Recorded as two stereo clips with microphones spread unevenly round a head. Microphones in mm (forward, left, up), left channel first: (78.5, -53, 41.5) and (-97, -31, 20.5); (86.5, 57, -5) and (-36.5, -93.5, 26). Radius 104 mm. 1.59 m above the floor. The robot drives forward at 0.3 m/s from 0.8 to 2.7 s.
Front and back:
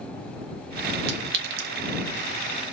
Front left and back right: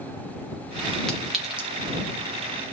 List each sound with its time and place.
1.1 s a clink: 145° left, 0.7 m; by 1.7 s 155° left, 0.8 m